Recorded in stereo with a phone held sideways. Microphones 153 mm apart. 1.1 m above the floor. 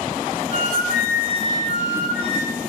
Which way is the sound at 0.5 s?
85° left.